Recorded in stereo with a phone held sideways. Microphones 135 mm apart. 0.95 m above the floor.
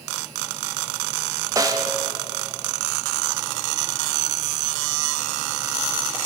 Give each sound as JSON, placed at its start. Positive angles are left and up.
{"t": 1.6, "sound": "a snare drum", "side_deg": -25, "distance_m": 0.7}